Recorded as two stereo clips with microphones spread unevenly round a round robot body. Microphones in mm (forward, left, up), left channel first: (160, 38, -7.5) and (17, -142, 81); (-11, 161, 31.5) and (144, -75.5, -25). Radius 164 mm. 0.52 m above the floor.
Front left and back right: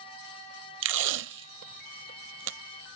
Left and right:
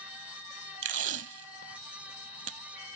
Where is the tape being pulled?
120° right.